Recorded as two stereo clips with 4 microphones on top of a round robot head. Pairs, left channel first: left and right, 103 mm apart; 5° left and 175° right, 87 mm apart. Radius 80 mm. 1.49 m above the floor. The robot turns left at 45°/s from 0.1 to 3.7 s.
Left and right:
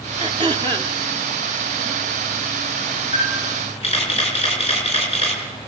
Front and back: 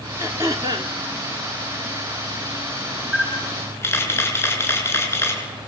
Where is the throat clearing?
110° right, 1.2 m; by 0.9 s 145° right, 1.2 m.